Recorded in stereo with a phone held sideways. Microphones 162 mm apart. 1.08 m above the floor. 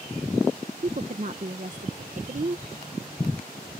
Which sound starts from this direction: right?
A woman speaking, at 0.8 s.